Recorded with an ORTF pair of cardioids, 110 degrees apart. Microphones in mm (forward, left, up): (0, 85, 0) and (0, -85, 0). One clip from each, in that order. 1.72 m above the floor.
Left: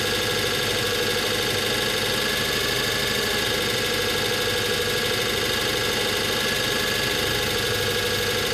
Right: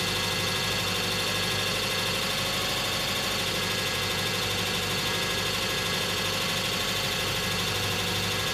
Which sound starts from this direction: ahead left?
An engine running, at 0.0 s.